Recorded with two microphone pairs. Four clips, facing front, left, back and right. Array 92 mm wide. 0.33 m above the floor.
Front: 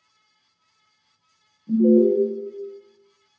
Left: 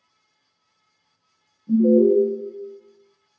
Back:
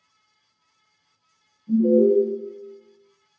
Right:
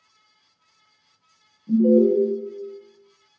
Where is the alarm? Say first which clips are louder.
Left 1 dB, front 1 dB; 50° left, 0.6 m.